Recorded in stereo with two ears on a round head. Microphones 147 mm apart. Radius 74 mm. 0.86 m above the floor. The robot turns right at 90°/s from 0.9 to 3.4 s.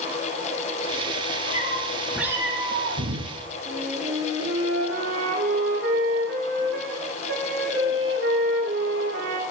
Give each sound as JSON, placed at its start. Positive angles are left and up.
{"t": 1.5, "sound": "a cat meowing", "azimuth_deg": 125, "distance_m": 3.5}
{"t": 3.6, "sound": "a flute", "side_deg": -80, "distance_m": 7.5}